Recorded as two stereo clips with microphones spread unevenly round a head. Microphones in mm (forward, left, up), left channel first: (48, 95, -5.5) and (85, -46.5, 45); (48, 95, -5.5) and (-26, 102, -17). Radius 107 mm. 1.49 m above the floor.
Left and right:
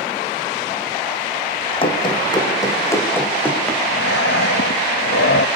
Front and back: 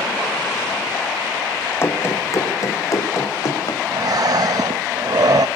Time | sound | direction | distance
1.8 | running footsteps | 45° left | 4.5 m
3.9 | breathing | 150° left | 1.0 m